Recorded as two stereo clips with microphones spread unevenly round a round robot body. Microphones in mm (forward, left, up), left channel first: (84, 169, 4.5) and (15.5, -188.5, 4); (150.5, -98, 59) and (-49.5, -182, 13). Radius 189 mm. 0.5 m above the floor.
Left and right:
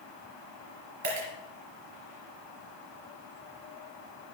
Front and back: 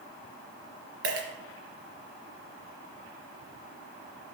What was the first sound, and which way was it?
A dropped coin, 150° right.